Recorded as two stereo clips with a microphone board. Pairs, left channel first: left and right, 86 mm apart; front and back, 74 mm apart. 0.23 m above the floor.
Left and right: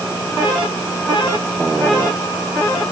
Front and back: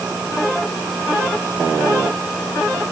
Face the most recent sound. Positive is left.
No sound to turn to.